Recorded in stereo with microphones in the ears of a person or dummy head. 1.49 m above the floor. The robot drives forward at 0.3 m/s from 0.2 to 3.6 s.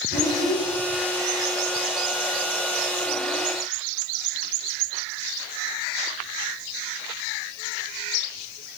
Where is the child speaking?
65° left (ahead or behind), 1.1 m; by 0.7 s 60° left (ahead or behind), 1.2 m.